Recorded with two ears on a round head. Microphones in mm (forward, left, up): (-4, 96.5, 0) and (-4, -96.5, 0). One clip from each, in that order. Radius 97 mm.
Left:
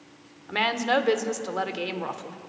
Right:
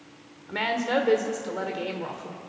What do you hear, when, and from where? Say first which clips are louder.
0.5 s a woman speaking: left 2 dB; 35° left (ahead or behind), 1.4 m